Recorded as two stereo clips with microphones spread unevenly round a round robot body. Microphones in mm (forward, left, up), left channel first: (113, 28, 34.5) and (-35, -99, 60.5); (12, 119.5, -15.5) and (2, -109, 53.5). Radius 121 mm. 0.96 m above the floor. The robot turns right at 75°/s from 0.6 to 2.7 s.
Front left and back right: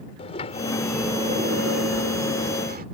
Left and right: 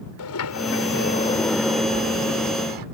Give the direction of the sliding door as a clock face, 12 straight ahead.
8 o'clock.